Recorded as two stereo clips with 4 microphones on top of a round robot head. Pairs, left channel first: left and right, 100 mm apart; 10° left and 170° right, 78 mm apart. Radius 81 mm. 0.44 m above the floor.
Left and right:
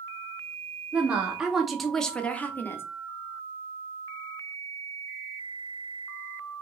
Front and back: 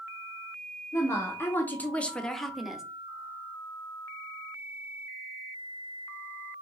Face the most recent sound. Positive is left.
turn(degrees=120)